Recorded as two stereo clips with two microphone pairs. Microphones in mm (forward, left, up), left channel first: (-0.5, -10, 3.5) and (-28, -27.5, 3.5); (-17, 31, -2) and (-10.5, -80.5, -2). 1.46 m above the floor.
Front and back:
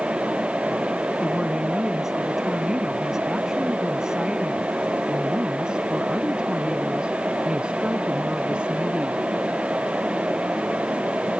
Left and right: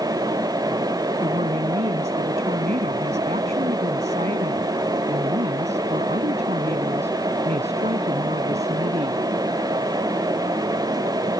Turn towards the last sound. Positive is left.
turn(degrees=-95)